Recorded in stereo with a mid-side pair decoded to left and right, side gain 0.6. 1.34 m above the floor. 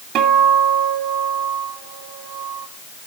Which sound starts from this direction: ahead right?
A guitar, at 0.1 s.